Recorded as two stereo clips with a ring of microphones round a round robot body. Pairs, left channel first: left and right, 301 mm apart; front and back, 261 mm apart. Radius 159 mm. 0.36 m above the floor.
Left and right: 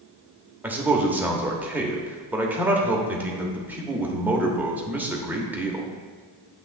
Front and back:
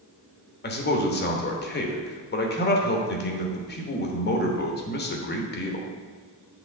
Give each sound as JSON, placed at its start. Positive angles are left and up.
{"t": 0.6, "sound": "a man speaking", "azimuth_deg": -10, "distance_m": 1.1}